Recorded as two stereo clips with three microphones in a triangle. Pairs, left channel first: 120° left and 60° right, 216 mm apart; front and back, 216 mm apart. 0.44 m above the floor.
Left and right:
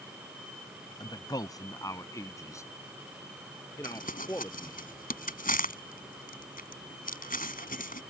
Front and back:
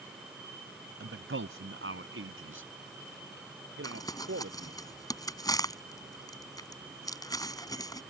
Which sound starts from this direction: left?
Crumpling, at 3.8 s.